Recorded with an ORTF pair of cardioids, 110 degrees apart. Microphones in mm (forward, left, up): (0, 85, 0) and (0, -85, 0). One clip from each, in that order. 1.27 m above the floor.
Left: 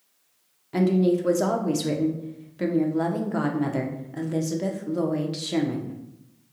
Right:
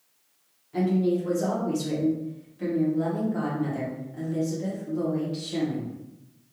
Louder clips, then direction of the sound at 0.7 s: Left 3 dB; 55° left.